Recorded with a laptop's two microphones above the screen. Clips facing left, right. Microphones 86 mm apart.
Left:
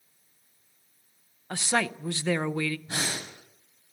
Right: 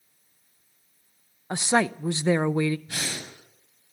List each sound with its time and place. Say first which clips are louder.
1.5 s a woman speaking: right 5 dB; 20° right (ahead or behind), 0.5 m
2.9 s breathing: left 2 dB; 25° left (ahead or behind), 8 m